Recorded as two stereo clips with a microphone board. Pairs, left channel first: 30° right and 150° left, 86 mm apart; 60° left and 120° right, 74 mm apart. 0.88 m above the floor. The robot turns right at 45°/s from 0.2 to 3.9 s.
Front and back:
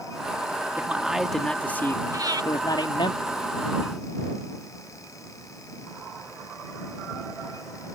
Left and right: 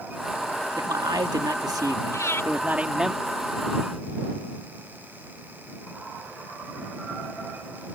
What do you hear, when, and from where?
0.8 s a man speaking: 140° right; by 3.1 s 35° right
2.1 s breathing: 105° left; by 2.5 s 120° left